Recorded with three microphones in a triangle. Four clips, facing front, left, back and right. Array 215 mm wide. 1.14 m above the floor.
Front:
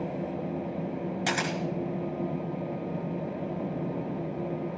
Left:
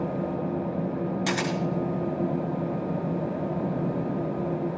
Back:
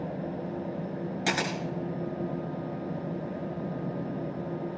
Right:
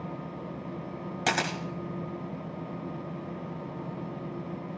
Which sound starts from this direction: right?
A camera shutter, at 1.3 s.